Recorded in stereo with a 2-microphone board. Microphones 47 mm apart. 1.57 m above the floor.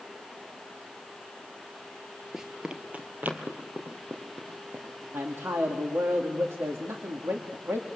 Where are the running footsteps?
10° right (ahead or behind), 1.7 m; by 5.0 s 60° right (ahead or behind), 4.5 m.